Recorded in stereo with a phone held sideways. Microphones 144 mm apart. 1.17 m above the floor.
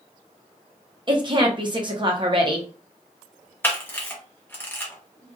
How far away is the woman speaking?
About 0.9 m.